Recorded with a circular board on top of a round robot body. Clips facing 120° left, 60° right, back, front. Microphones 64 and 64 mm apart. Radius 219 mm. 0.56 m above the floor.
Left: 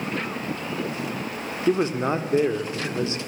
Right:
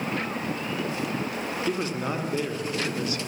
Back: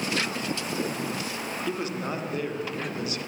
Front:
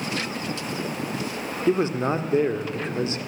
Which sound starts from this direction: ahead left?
A man speaking, at 1.7 s.